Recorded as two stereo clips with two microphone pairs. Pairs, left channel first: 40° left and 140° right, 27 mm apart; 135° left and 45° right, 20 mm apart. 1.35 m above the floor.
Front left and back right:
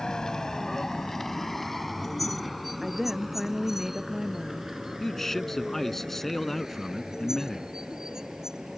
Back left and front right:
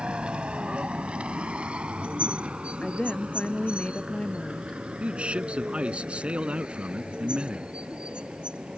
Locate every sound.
0.0 s a vehicle: 20° right; by 8.8 s 75° right
2.8 s a woman speaking: 145° left
5.0 s a man speaking: 40° right